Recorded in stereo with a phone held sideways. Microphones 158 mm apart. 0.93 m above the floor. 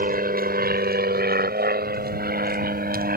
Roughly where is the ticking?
I don't hear ticking.